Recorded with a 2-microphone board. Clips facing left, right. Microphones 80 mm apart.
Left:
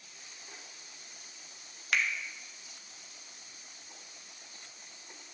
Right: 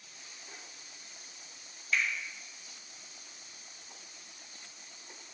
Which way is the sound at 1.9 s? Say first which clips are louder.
Left 1 dB; 70° left (ahead or behind).